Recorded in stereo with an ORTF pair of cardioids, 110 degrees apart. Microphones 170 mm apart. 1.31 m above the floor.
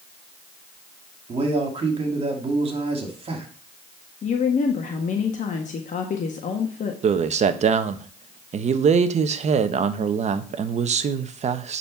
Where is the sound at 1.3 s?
35° right, 3 m.